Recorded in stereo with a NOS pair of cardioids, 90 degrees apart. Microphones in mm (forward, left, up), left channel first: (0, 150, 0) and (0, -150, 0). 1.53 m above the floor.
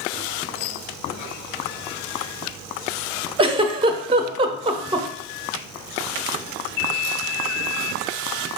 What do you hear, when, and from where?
3.4 s a giggle: 20° right, 0.6 m